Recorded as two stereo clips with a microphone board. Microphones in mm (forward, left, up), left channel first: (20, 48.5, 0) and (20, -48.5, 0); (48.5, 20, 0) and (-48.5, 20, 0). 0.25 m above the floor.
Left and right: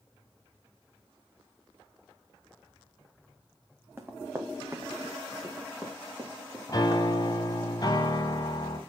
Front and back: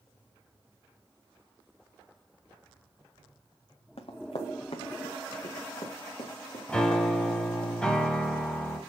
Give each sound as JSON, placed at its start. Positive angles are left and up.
{"t": 4.0, "sound": "running footsteps", "azimuth_deg": -20, "distance_m": 1.5}
{"t": 6.7, "sound": "a piano", "azimuth_deg": 75, "distance_m": 1.8}